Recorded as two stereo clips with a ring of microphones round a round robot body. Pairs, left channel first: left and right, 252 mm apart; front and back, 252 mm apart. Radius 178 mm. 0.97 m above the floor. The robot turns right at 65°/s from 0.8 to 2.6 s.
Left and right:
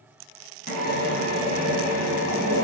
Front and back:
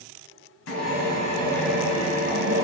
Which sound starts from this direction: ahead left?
A drill, at 0.7 s.